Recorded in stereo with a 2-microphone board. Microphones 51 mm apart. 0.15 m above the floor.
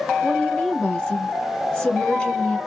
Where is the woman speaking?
20° left (ahead or behind), 1.4 m.